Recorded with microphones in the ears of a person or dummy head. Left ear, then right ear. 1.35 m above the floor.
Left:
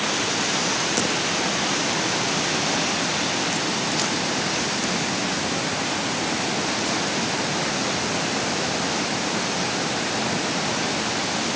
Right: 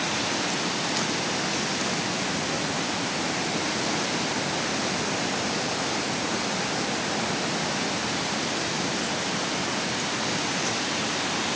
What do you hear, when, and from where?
Only background noise.